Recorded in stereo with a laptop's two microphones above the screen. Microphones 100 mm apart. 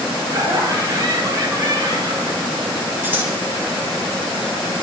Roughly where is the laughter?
Right.